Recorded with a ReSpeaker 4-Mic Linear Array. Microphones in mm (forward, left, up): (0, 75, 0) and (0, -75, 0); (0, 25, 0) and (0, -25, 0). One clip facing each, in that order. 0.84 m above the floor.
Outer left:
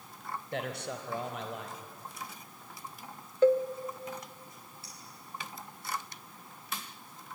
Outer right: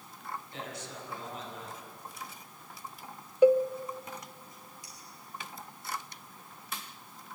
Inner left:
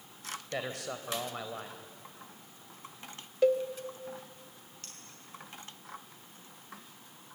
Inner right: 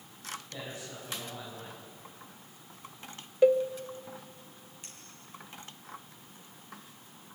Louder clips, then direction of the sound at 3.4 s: Outer right 2 dB, inner right 3 dB; 10° right (ahead or behind).